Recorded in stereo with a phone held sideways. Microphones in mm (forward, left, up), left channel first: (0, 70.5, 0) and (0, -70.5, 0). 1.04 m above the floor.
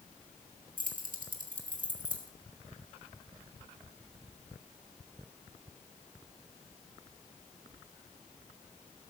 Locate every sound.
0.8 s keys jangling: 80° right, 1.6 m